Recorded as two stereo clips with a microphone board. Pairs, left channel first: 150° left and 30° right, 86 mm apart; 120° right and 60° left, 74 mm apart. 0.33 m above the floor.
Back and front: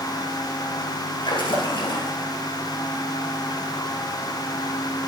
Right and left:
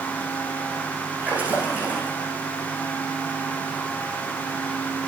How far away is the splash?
About 5.5 m.